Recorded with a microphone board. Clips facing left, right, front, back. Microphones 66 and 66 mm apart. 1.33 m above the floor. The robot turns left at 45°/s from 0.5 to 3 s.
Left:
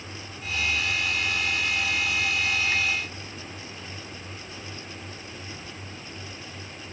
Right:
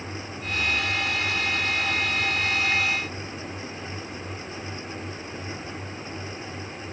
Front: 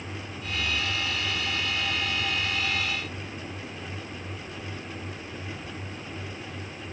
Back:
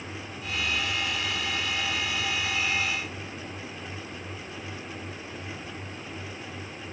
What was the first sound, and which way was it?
Only background noise.